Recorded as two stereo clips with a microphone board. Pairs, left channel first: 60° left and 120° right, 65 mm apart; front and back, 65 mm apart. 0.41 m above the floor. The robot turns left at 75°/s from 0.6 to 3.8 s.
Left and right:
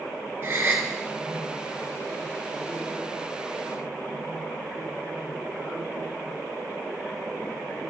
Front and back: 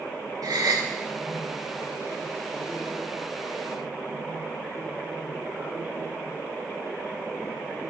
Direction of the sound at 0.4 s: 175° right.